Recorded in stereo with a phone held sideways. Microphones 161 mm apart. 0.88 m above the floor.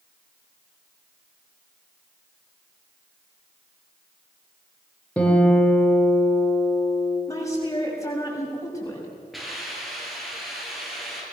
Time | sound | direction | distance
5.2 | a guitar | 10° left (ahead or behind) | 4 m
7.3 | a woman speaking | 20° left (ahead or behind) | 6.5 m
9.3 | a hiss | centre (ahead or behind) | 7 m